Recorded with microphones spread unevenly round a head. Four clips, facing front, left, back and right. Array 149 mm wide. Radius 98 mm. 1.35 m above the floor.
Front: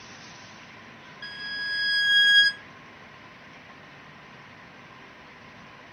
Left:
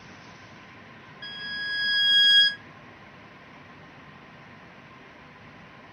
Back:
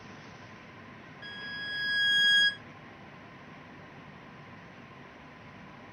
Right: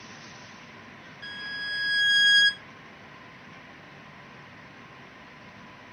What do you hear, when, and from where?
1.2 s a violin: 90° left, 1.5 m